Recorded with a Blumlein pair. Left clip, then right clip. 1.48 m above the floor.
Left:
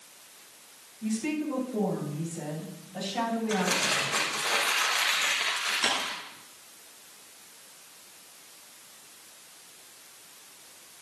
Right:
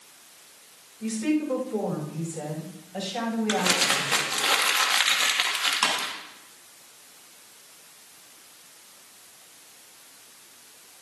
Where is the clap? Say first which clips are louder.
Right 2 dB; 60° right, 8.5 m.